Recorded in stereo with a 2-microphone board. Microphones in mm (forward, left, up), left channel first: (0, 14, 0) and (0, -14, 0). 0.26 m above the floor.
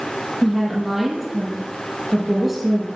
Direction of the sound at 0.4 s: Centre (ahead or behind).